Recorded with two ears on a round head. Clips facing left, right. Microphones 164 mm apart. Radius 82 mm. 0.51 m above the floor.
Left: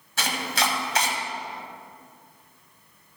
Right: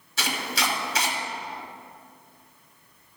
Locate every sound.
0.2 s chopping: 45° left (ahead or behind), 1.6 m